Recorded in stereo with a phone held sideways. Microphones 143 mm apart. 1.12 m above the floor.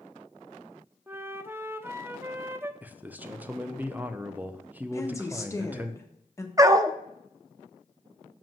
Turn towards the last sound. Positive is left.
turn(degrees=-25)  # may be behind; listen again after turning